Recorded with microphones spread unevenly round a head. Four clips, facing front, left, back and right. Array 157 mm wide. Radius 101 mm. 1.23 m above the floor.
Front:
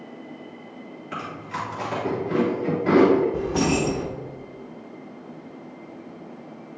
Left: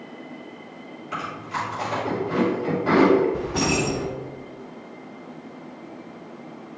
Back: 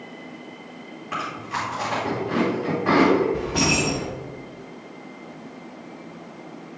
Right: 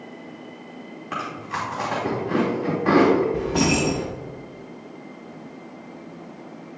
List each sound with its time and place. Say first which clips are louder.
1.1 s chewing: even, back 3 dB; 70° right, 2.5 m
3.3 s keys jangling: right 2 dB, front 1 dB; 45° right, 0.9 m